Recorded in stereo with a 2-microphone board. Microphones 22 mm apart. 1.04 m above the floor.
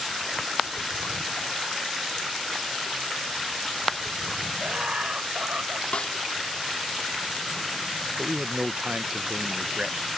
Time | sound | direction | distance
4.6 | laughter | 55° right (ahead or behind) | ?
5.9 | a snare drum | 60° left (ahead or behind) | ?
8.2 | a man speaking | 50° right (ahead or behind) | ?